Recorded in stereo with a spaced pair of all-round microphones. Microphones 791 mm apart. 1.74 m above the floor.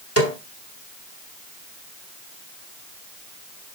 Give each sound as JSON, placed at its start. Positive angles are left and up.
{"t": 0.2, "sound": "a snare drum", "side_deg": 15, "distance_m": 1.6}